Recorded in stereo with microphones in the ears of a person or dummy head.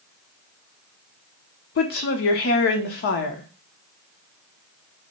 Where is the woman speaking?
55° left (ahead or behind), 0.7 m.